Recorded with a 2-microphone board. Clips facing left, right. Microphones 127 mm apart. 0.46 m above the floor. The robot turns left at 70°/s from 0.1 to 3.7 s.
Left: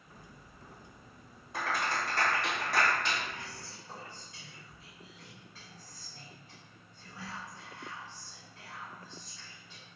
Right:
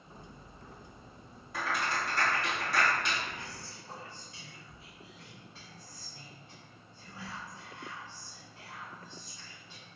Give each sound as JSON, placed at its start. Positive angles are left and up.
{"t": 1.5, "sound": "a clap", "side_deg": 25, "distance_m": 1.8}
{"t": 3.3, "sound": "whispering", "side_deg": -20, "distance_m": 1.2}